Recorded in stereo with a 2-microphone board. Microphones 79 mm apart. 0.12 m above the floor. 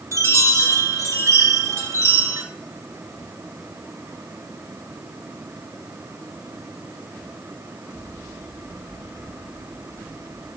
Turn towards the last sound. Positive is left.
turn(degrees=-40)  # may be behind; listen again after turning